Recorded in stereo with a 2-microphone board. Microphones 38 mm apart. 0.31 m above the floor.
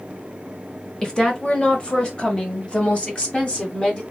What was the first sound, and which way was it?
A woman speaking, 20° left (ahead or behind).